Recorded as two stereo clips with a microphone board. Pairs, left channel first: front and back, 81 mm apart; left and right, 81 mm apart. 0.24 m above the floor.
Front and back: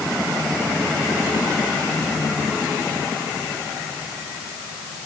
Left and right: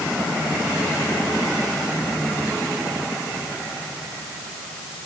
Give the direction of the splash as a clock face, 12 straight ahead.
No splash in this recording.